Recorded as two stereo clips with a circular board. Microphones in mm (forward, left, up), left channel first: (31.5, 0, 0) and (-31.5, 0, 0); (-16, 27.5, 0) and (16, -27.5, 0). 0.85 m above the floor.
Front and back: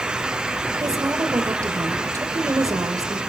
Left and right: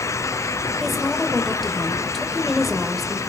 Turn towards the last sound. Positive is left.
turn(degrees=-150)